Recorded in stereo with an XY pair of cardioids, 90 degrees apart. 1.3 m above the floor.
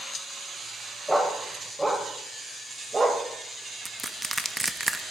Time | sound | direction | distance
1.1 | a dog barking | 5° right | 3 m
3.9 | crushing | 10° right | 1.1 m